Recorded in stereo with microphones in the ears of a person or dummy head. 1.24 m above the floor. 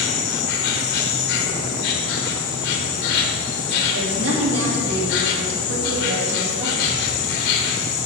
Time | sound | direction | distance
0.0 | an insect | 55° left (ahead or behind) | 1.1 m
3.9 | a woman speaking | 75° right (ahead or behind) | 2.5 m